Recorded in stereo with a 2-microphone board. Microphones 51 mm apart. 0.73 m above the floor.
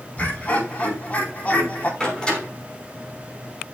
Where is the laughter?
25° left (ahead or behind), 5.5 m; by 1.9 s 30° left (ahead or behind), 4.5 m.